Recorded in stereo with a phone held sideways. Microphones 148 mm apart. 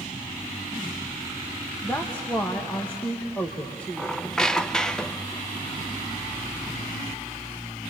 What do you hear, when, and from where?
1.8 s a woman speaking: 10° left (ahead or behind), 1.4 m
4.0 s a squeak: 5° left (ahead or behind), 0.6 m